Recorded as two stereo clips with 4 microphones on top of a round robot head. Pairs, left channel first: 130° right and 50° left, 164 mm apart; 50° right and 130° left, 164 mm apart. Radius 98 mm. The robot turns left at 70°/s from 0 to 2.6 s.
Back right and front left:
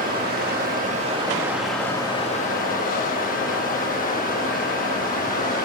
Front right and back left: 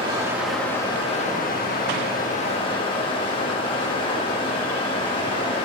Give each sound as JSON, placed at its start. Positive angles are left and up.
{"t": 0.0, "sound": "running water", "azimuth_deg": 75, "distance_m": 1.4}